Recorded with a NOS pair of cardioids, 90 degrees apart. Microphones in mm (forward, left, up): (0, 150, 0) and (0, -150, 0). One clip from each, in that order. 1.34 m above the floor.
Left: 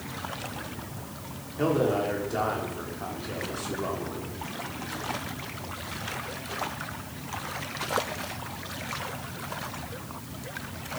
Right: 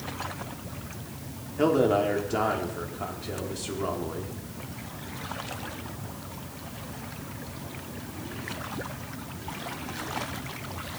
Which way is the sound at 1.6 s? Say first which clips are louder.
Right 3 dB; 30° right.